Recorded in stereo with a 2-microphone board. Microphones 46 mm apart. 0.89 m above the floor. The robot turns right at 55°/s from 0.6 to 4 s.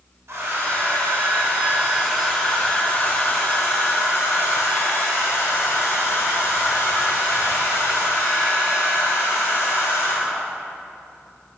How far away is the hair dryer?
About 1.4 m.